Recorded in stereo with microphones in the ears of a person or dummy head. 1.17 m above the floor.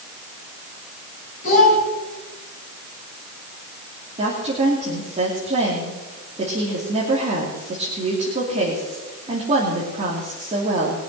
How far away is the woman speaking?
About 3 m.